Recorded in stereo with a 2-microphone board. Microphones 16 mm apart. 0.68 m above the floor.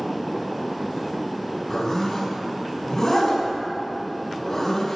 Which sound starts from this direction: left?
A zipper, at 1.7 s.